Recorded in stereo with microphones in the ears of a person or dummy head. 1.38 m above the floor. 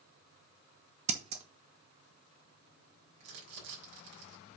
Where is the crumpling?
65° right (ahead or behind), 5 m.